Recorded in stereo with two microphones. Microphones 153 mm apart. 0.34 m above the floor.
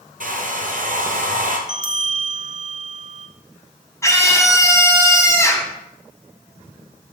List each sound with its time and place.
0.2 s a hair dryer: 65° right (ahead or behind), 1.9 m
1.7 s a bell: 55° right (ahead or behind), 0.8 m
4.0 s a scream: 20° left (ahead or behind), 2 m